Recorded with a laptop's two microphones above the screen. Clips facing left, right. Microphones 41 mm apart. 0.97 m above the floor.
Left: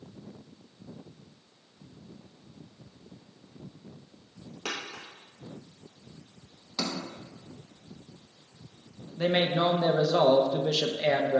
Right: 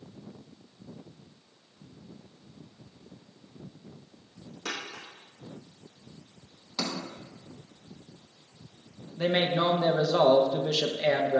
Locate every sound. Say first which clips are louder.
4.7 s a dropped coin: even; 60° left (ahead or behind), 2.5 m
6.8 s a sliding door: even; centre (ahead or behind), 0.7 m
9.2 s a man speaking: even; 5° left (ahead or behind), 0.7 m